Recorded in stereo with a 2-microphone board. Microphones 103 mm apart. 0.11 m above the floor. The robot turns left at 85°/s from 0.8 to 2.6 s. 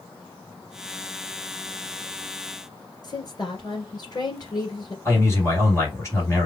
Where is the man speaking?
30° left (ahead or behind), 2.5 m.